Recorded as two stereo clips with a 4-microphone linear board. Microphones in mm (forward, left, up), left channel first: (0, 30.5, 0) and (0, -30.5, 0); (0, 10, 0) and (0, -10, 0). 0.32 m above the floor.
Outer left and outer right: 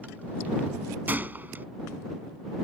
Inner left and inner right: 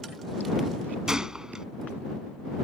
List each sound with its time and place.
1.1 s a gunshot: 30° right (ahead or behind)